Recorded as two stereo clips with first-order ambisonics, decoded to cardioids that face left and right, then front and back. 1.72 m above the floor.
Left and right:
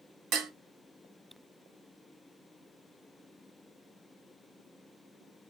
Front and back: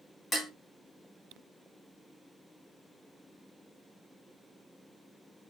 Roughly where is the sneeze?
I don't hear a sneeze.